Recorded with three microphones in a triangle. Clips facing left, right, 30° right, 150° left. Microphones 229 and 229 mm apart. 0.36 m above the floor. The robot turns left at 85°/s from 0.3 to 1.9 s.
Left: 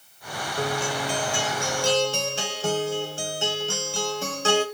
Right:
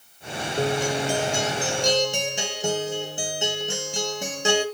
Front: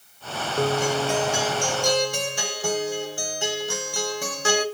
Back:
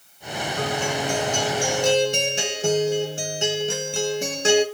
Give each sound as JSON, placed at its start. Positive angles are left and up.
{"t": 0.6, "sound": "a guitar", "azimuth_deg": -40, "distance_m": 0.9}